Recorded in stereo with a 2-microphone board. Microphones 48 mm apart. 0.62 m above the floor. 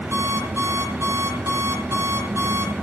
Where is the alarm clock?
60° right (ahead or behind), 9.5 m.